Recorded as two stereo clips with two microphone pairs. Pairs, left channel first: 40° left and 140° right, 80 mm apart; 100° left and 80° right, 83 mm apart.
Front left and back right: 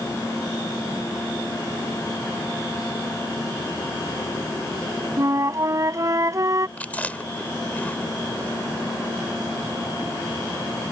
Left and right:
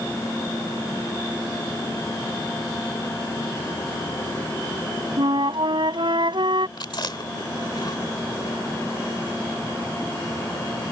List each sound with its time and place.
5.2 s a flute: 90° right
6.8 s chewing: 110° left